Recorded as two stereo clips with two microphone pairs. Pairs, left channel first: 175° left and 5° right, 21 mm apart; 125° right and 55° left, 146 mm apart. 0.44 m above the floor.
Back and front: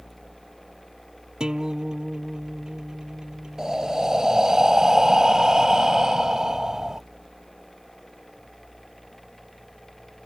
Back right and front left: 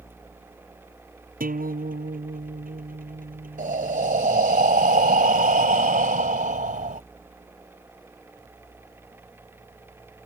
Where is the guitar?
40° left.